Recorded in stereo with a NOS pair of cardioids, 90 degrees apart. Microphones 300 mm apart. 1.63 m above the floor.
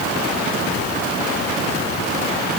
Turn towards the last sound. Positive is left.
No sound to turn to.